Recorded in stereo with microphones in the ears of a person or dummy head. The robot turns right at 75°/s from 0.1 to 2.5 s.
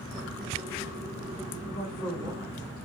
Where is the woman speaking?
140° left, 1.5 m; by 2.7 s 155° right, 1.5 m.